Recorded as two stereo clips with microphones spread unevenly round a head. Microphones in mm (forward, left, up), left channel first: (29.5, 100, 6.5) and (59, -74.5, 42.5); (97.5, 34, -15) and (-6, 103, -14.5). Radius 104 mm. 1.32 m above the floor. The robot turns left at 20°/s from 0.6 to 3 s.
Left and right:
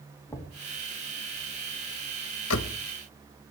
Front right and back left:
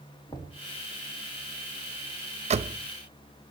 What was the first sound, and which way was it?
Knocking, 25° left.